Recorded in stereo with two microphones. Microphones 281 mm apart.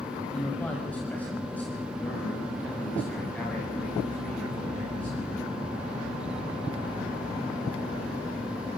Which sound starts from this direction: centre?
A man speaking, at 0.3 s.